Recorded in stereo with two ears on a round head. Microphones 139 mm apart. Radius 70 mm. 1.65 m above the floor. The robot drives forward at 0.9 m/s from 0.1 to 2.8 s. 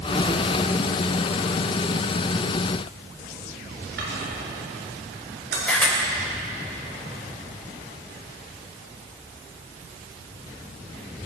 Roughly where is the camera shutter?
Centre.